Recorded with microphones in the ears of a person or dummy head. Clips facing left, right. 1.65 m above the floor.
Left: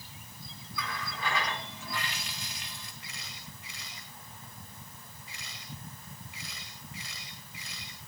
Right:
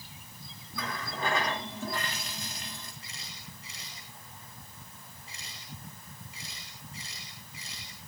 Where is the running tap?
35° right (ahead or behind), 2.5 m.